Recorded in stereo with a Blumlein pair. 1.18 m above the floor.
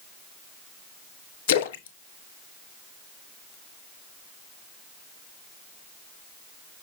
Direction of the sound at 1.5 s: 55° left.